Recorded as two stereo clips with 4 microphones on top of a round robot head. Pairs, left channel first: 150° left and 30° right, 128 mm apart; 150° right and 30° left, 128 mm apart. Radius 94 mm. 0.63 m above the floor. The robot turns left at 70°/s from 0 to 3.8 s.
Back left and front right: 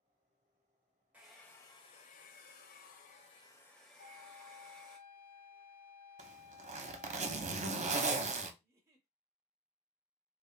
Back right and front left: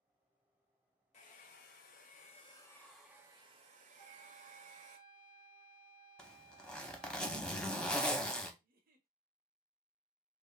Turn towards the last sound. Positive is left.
turn(degrees=35)